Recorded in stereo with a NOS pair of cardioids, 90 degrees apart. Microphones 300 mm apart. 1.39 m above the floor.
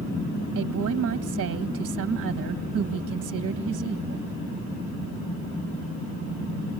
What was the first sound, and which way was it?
A woman speaking, 50° right.